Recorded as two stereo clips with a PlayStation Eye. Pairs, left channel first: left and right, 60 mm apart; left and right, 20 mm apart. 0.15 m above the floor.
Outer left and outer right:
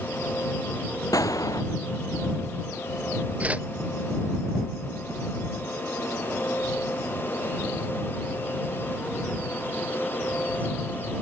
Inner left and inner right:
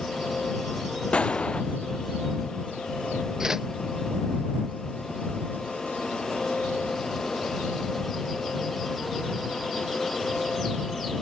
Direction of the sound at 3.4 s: 20° right (ahead or behind).